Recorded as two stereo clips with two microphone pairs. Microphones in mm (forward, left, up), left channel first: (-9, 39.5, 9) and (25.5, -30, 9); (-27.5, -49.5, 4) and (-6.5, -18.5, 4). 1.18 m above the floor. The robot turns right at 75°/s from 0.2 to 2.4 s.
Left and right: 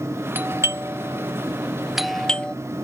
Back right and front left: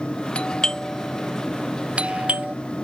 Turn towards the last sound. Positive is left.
turn(degrees=55)